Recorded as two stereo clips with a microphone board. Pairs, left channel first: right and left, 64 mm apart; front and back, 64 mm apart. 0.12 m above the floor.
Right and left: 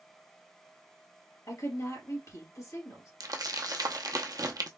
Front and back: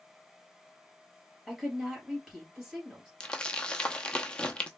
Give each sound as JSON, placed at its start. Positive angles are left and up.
{"t": 1.5, "sound": "a woman speaking", "azimuth_deg": -100, "distance_m": 2.5}
{"t": 3.2, "sound": "crumpling", "azimuth_deg": 75, "distance_m": 0.6}